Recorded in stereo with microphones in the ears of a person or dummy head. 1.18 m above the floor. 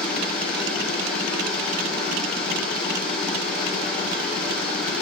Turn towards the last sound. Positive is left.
turn(degrees=5)  # may be behind; listen again after turning